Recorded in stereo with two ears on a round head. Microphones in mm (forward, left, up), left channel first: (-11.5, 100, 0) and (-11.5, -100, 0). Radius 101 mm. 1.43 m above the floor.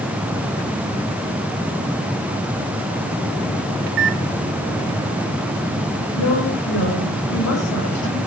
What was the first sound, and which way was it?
A microwave, 55° right (ahead or behind).